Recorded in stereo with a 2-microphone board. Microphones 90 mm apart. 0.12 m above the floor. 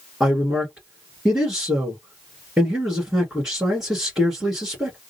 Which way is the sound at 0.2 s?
10° right (ahead or behind).